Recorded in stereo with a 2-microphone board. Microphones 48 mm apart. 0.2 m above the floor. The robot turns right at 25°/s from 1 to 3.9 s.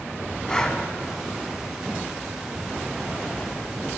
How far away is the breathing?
About 0.7 m.